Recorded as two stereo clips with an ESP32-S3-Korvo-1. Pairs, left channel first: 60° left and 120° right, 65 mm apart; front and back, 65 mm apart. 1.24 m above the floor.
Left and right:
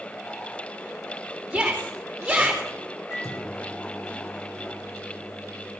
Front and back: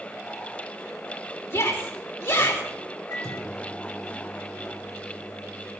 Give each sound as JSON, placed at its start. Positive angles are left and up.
{"t": 1.5, "sound": "a shout", "azimuth_deg": -30, "distance_m": 2.5}
{"t": 3.1, "sound": "a microwave", "azimuth_deg": 20, "distance_m": 3.0}